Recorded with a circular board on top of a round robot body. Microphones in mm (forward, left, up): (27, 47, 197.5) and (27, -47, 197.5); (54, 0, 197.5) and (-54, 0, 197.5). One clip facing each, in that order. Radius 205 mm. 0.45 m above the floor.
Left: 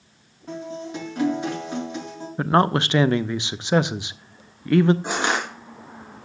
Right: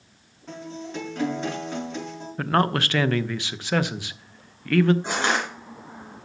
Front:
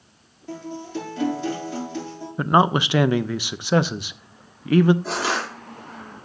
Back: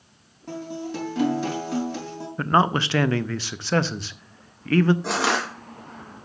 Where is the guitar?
170° left, 5 m.